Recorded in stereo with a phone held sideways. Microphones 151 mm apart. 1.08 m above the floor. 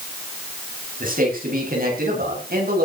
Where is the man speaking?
70° right (ahead or behind), 9 m; by 2.9 s 85° right, 8.5 m.